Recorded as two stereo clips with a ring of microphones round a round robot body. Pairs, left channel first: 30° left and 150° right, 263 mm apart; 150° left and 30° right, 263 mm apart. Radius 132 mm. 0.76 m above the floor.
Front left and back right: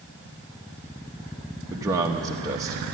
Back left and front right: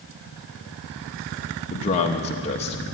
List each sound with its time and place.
1.7 s a man speaking: 155° left, 0.9 m